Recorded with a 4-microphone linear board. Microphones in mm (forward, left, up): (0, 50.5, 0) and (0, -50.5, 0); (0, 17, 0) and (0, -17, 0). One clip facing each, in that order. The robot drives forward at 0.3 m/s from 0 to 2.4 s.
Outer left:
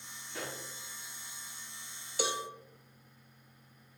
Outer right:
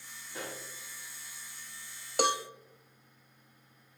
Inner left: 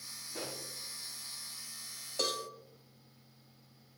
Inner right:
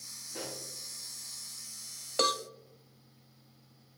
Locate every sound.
0.3 s a pop: 20° right (ahead or behind), 5.5 m
2.2 s a cowbell: 60° right (ahead or behind), 0.6 m